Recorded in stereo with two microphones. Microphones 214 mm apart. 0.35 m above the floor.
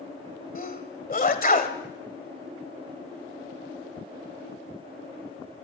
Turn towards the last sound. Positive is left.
turn(degrees=40)  # may be behind; listen again after turning